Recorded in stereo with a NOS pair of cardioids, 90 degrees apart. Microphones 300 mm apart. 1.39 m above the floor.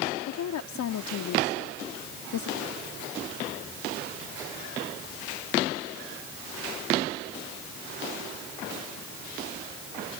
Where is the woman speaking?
70° left.